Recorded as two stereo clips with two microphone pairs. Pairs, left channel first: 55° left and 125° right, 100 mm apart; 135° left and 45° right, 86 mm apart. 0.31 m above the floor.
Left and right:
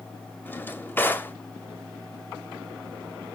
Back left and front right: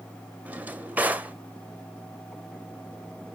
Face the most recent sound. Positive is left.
turn(degrees=10)